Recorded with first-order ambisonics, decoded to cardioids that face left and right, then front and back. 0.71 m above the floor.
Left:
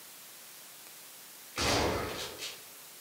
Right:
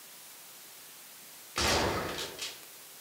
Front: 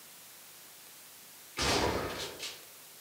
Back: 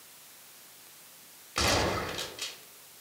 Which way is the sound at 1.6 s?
155° right.